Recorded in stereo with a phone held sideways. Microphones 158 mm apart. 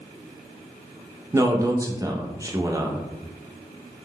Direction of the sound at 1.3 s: 20° right (ahead or behind).